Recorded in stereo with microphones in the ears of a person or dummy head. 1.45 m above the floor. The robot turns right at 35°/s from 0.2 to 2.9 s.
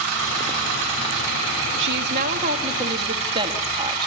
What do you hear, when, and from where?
1.8 s a woman speaking: 65° right, 2 m; by 4.1 s 25° right, 2 m